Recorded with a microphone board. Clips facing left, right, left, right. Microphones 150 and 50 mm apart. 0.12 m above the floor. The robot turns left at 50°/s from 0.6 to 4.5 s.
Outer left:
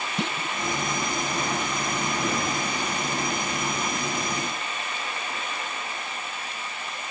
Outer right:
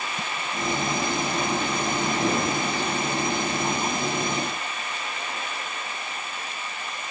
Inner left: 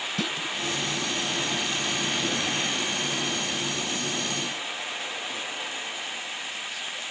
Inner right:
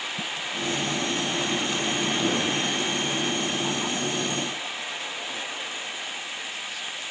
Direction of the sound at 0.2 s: 75° left (ahead or behind).